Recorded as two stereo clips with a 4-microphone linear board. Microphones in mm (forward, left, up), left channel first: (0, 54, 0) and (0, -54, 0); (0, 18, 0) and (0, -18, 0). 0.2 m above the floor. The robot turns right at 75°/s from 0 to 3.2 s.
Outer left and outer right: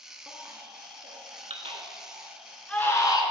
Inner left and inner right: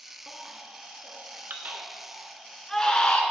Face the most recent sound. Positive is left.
turn(degrees=45)  # may be behind; listen again after turning